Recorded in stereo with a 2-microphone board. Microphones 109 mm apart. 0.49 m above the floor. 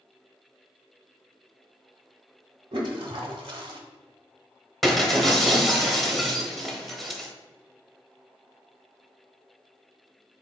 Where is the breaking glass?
Centre (ahead or behind), 0.8 m.